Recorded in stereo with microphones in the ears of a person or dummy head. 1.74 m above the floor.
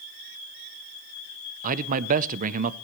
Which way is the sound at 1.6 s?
45° right (ahead or behind).